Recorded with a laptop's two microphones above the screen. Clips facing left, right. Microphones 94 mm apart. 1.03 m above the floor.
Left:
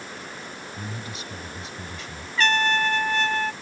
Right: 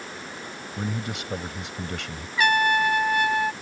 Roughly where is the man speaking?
Right.